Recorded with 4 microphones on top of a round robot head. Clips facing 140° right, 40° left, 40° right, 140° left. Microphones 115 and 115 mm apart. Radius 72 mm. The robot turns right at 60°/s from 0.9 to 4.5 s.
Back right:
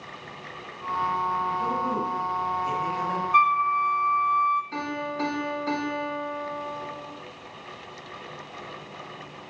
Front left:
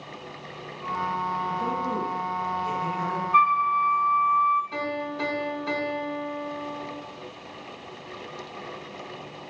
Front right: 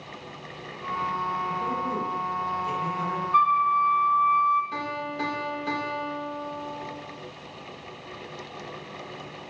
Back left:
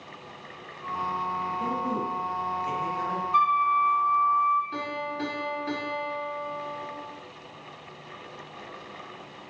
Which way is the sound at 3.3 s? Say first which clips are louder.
Front left 1 dB, front right 2 dB; 160° right.